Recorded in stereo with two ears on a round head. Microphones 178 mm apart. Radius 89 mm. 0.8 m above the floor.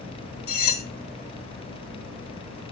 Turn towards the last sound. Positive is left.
turn(degrees=50)  # may be behind; listen again after turning